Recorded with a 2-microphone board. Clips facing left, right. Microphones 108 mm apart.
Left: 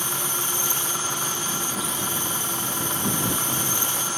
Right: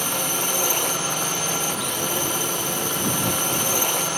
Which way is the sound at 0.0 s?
65° right (ahead or behind).